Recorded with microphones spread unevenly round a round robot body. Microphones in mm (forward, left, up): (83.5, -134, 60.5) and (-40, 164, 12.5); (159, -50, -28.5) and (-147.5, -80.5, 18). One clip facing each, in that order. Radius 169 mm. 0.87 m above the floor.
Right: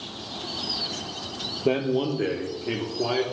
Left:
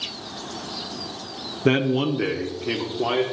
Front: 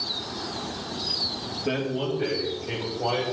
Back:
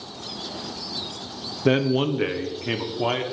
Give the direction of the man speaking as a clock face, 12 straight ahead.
7 o'clock.